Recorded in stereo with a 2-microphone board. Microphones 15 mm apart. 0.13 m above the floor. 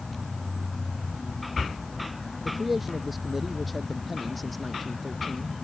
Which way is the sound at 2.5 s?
10° right (ahead or behind).